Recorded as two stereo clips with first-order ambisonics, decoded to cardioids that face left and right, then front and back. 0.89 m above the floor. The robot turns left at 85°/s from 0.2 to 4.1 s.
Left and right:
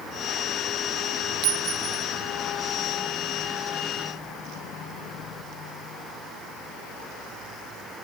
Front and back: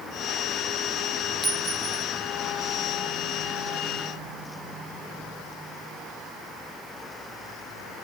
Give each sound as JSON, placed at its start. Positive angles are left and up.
{"t": 1.4, "sound": "a clink", "azimuth_deg": -100, "distance_m": 0.9}